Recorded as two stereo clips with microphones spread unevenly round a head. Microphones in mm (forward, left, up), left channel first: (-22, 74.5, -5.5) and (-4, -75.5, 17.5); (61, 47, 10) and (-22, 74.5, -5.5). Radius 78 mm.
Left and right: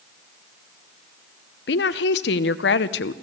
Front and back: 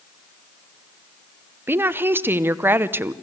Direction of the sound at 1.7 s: 95° left.